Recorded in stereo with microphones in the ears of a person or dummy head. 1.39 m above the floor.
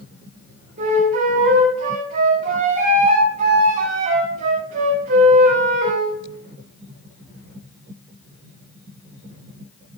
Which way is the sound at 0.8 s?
40° right (ahead or behind).